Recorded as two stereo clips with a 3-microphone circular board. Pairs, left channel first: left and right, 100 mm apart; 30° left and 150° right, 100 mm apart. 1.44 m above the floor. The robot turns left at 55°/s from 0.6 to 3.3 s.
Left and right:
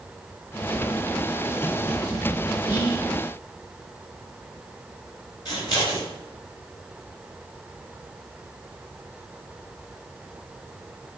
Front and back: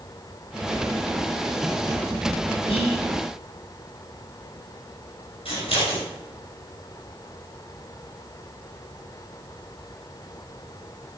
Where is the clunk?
No clunk in this recording.